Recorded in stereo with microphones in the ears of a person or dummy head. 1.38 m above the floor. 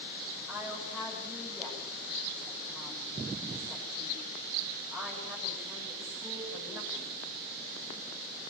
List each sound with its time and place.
0.5 s a woman speaking: centre (ahead or behind), 6.5 m